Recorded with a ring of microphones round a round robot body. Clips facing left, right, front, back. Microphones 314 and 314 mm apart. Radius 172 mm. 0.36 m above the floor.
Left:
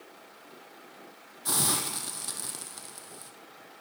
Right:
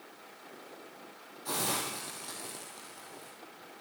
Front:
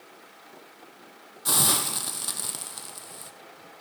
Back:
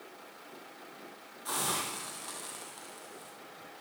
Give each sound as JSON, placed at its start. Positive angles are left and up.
{"t": 1.4, "sound": "a hiss", "azimuth_deg": 25, "distance_m": 2.5}